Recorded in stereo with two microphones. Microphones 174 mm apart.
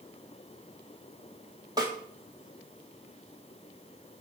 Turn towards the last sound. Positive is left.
turn(degrees=-20)  # may be behind; listen again after turning